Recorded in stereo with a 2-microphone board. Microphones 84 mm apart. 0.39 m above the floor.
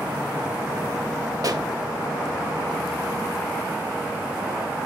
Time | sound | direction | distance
1.4 | a pop | 50° right (ahead or behind) | 1.9 m